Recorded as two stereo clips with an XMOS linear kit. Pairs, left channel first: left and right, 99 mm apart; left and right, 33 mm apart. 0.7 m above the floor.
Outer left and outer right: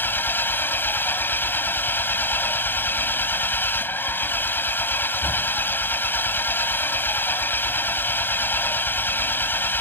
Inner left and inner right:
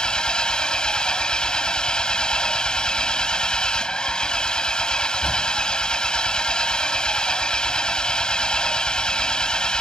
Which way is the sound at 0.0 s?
20° left (ahead or behind).